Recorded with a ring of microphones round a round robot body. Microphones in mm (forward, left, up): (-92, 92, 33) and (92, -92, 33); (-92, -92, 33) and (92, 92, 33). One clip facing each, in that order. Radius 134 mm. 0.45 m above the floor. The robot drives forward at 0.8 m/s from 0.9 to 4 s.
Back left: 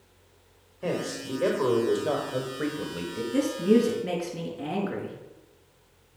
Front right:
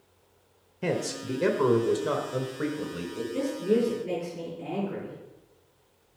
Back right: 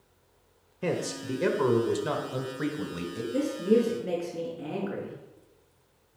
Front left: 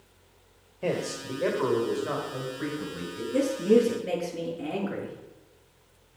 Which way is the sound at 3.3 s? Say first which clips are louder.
Back left 4 dB, front left 3 dB; 130° left.